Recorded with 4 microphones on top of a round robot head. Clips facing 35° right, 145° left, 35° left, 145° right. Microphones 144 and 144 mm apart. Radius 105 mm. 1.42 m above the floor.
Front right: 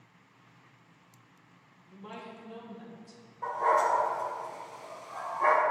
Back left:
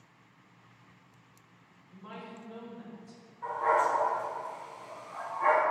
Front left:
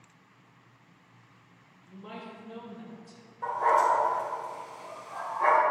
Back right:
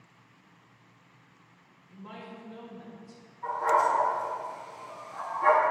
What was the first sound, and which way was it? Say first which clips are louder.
A woman speaking: front right 1 dB, front left 1 dB; 25° left.